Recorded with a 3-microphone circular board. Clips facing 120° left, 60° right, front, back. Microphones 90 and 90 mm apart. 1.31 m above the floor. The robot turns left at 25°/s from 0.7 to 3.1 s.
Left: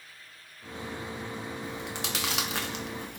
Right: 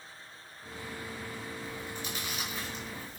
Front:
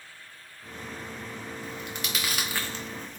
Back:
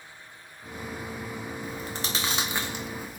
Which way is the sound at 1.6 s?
135° left.